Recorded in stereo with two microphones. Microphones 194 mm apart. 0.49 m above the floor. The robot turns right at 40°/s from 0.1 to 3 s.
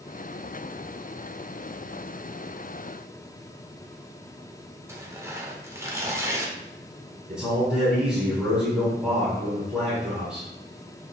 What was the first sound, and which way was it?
Tearing paper, 15° right (ahead or behind).